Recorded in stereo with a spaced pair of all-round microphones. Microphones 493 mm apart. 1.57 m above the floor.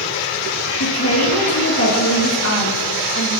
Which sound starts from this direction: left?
A woman speaking, at 0.8 s.